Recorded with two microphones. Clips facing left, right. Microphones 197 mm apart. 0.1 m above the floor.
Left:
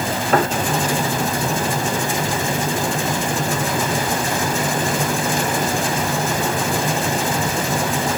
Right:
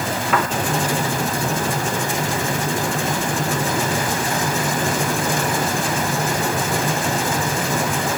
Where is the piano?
35° left (ahead or behind).